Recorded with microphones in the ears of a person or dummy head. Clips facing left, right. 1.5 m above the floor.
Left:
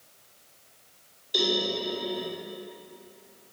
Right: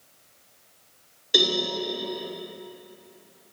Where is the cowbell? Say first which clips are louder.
Right 2 dB; 70° right (ahead or behind), 3.5 m.